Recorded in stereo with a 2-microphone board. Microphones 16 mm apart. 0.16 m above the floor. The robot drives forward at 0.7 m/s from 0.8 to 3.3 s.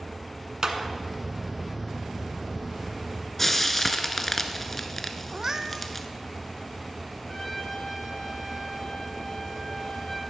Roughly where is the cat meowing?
Right.